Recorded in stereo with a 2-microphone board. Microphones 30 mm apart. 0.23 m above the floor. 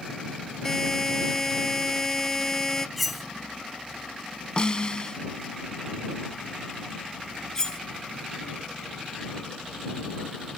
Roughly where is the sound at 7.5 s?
Left.